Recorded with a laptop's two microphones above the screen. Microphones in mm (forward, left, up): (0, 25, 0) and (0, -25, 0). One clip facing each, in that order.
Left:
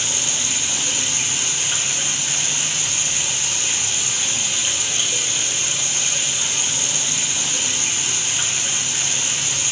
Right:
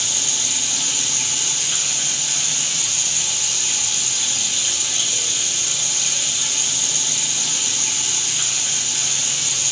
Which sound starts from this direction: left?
Running water, at 0.0 s.